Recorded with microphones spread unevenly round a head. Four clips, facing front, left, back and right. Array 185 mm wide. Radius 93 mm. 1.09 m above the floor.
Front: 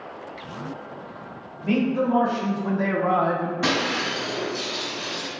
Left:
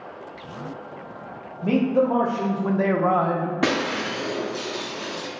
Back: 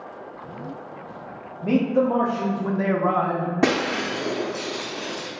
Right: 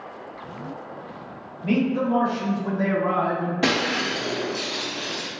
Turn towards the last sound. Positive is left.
turn(degrees=165)